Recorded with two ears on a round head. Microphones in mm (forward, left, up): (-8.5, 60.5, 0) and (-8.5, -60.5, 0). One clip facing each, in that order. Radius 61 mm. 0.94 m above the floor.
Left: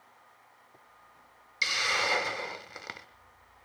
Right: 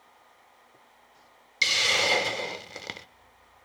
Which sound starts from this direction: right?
A hiss, at 1.6 s.